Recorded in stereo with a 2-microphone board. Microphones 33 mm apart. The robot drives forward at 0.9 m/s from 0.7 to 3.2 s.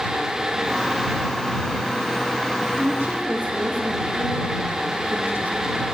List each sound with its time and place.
2.8 s a woman speaking: 60° right (ahead or behind), 4 m; by 5.8 s 65° right (ahead or behind), 4 m